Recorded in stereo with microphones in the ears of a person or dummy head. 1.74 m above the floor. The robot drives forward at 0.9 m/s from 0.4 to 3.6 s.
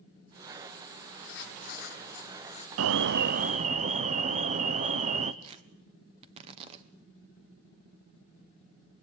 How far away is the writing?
About 1.0 m.